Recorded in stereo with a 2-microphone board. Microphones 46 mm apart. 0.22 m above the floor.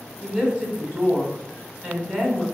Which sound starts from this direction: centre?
A woman speaking, at 0.2 s.